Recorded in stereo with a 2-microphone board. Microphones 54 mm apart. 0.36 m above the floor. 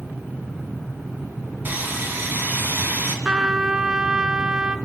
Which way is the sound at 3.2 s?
15° right (ahead or behind).